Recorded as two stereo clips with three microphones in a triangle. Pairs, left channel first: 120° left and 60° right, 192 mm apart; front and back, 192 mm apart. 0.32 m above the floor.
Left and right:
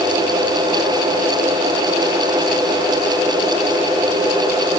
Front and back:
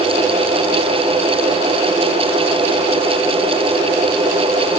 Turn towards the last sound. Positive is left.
No sound to turn to.